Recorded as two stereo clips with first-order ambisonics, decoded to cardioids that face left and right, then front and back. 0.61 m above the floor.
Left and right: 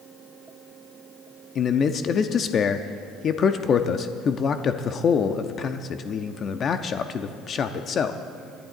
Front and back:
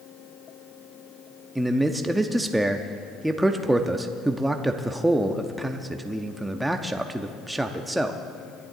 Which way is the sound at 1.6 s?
105° left.